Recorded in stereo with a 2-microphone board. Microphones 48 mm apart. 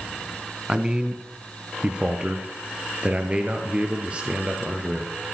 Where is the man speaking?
20° right (ahead or behind), 1.4 m; by 5.1 s 25° right (ahead or behind), 3.5 m.